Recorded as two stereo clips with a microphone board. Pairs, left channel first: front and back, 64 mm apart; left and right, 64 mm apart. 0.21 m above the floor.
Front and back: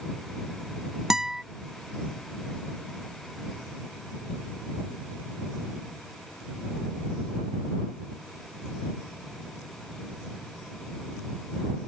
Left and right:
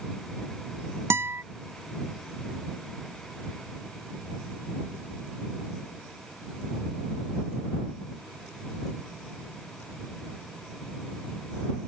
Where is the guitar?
100° right.